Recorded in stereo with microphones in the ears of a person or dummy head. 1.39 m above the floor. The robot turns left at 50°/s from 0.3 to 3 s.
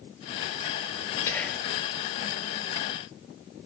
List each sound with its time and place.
1.3 s whispering: 15° left (ahead or behind), 4 m; by 1.7 s 10° right (ahead or behind), 4 m